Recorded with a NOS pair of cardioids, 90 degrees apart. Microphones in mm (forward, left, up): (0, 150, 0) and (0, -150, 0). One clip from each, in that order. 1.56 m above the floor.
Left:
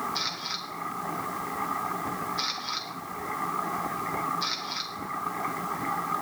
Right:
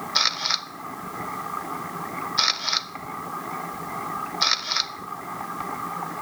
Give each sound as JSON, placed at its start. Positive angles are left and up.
{"t": 0.1, "sound": "a camera shutter", "azimuth_deg": -55, "distance_m": 0.6}